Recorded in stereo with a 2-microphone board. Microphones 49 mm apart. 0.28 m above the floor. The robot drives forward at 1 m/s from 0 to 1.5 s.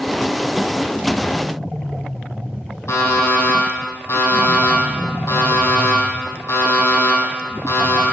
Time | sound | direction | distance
2.9 | an alarm clock | 65° left (ahead or behind) | 4 m